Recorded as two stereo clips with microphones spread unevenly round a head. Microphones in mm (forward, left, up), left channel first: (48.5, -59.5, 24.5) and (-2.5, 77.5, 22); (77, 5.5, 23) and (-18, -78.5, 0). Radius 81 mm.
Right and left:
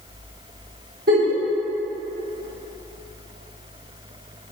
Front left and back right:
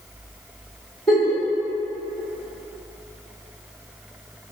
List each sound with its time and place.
1.1 s a giggle: 120° left, 1.8 m